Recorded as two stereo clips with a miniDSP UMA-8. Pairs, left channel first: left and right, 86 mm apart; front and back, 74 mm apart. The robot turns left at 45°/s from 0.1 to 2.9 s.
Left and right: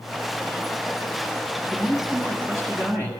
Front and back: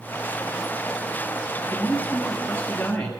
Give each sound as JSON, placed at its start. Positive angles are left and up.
{"t": 1.7, "sound": "a man speaking", "azimuth_deg": -10, "distance_m": 1.9}